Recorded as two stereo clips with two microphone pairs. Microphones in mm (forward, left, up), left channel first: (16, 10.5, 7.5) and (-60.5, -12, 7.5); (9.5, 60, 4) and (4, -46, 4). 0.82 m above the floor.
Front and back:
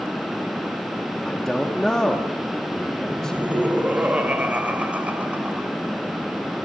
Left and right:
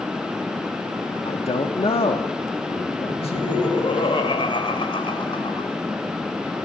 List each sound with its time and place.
1.2 s a man speaking: 95° left, 1.4 m
3.1 s laughter: 125° left, 3.5 m